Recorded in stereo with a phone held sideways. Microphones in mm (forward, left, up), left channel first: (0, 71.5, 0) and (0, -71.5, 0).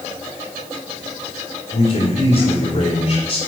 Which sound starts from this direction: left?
A man speaking, at 1.7 s.